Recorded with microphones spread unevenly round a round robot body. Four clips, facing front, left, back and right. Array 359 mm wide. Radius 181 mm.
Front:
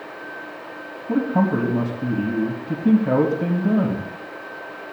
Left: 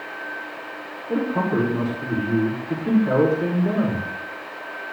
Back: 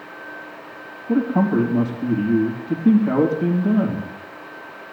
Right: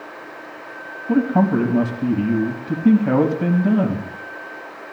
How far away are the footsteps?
No footsteps in this recording.